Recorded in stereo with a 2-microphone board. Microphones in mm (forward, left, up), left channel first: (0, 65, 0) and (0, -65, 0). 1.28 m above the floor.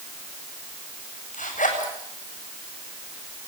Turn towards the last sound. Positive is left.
turn(degrees=80)